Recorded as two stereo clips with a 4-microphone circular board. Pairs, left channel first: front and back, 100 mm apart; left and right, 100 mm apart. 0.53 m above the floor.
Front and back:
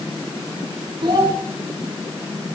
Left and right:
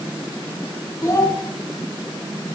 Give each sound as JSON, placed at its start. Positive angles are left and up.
{"t": 1.0, "sound": "a child speaking", "azimuth_deg": 145, "distance_m": 4.0}